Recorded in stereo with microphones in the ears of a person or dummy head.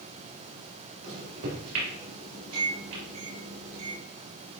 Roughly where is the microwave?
Right.